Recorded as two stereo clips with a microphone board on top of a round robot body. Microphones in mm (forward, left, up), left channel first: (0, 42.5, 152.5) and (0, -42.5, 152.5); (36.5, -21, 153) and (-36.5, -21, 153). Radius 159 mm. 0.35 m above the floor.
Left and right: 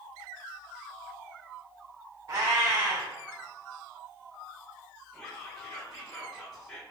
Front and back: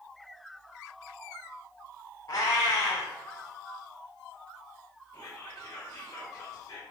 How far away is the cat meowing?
About 1.4 m.